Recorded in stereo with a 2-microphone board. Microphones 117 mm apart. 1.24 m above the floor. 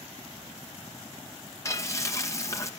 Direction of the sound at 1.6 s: 25° left (ahead or behind).